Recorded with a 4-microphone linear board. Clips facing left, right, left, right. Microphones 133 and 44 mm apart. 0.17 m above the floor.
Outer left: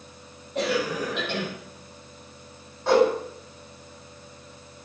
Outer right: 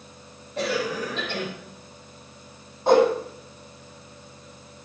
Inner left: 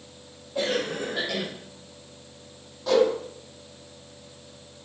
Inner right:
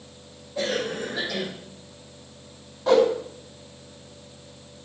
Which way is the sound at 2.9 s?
20° right (ahead or behind).